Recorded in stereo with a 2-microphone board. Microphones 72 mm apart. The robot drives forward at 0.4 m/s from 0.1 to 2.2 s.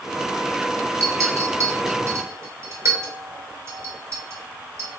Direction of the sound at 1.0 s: 45° right (ahead or behind).